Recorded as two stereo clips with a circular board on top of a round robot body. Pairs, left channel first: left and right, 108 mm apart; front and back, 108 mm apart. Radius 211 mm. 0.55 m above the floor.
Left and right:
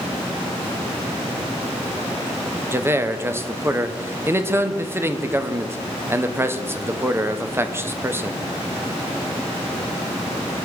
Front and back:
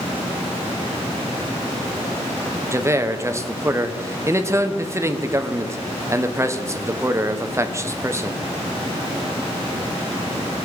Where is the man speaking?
140° right, 1.0 m.